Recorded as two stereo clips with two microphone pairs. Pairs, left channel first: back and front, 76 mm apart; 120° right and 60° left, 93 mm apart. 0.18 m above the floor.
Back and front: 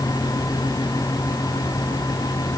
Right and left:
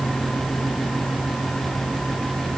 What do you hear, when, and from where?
Only background noise.